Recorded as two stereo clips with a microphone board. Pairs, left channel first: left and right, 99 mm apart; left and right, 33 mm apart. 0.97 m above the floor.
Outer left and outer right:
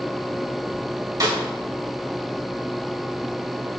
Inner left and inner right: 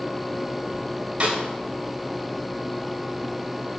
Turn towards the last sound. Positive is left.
turn(degrees=-40)  # may be behind; listen again after turning